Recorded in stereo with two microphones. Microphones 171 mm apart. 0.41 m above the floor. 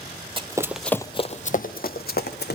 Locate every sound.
0.4 s running footsteps: 30° right (ahead or behind), 0.7 m; by 2.5 s 75° left (ahead or behind), 1.4 m